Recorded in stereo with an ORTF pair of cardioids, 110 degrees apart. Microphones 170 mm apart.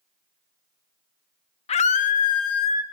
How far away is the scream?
About 1.1 m.